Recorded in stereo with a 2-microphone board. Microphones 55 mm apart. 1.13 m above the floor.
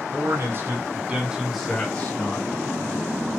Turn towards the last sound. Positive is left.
turn(degrees=35)  # may be behind; listen again after turning